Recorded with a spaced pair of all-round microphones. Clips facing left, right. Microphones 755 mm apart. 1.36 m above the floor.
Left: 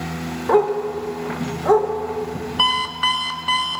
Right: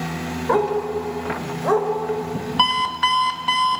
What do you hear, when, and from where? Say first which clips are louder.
0.5 s a dog barking: left 3 dB; 70° left (ahead or behind), 2 m; by 1.9 s 60° left (ahead or behind), 2.5 m
2.6 s an alarm clock: right 1 dB; 30° right (ahead or behind), 0.8 m